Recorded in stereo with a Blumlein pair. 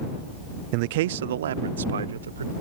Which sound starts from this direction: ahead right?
A man speaking, at 0.7 s.